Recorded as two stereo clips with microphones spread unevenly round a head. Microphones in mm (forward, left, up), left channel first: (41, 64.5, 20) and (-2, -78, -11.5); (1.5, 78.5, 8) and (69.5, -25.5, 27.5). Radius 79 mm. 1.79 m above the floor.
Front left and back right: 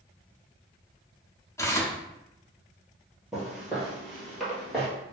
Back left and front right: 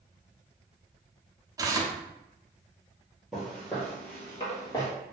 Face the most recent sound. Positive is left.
turn(degrees=125)